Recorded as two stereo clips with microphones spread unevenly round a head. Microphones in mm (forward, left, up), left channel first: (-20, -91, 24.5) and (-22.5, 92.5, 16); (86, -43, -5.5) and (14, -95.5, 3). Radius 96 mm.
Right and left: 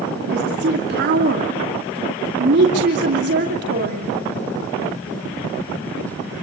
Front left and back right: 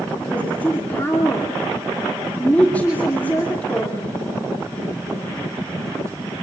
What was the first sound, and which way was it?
A woman speaking, 115° left.